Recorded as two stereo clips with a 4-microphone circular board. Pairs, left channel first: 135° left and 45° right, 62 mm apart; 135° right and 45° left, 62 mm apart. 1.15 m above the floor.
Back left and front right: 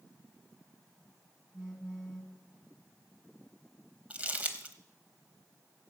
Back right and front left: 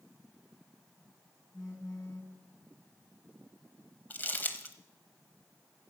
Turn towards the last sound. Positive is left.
turn(degrees=-100)